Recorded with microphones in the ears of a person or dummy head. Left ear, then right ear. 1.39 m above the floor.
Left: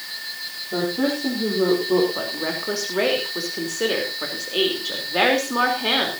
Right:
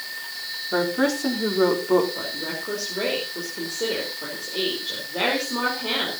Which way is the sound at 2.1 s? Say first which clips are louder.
Left 3 dB; 55° left (ahead or behind).